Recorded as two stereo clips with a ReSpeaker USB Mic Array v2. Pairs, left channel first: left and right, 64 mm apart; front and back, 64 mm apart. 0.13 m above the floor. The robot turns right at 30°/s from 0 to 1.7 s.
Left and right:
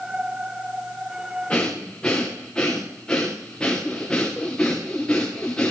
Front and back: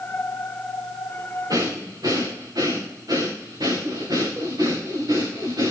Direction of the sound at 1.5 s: 160° left.